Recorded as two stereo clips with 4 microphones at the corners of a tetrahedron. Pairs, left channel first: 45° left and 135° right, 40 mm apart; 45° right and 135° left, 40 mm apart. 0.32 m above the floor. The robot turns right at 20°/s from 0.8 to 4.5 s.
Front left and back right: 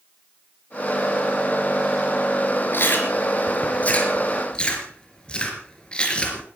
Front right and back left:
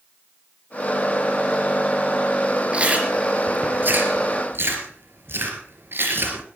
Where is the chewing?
75° left, 3.5 m; by 6.4 s 110° left, 3.5 m.